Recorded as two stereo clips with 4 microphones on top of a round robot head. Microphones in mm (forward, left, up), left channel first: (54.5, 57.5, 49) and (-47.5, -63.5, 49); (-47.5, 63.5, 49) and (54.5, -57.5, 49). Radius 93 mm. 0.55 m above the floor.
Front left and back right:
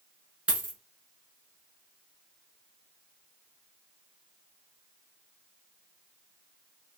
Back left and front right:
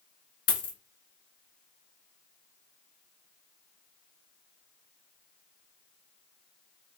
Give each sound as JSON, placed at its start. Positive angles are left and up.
{"t": 0.5, "sound": "a dropped coin", "azimuth_deg": 145, "distance_m": 1.0}